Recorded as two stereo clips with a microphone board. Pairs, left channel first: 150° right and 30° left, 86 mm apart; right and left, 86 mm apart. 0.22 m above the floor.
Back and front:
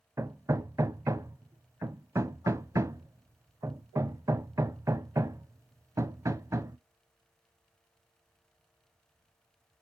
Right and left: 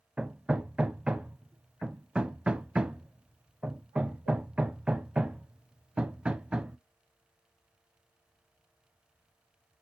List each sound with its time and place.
0.2 s hammering: 15° left, 0.5 m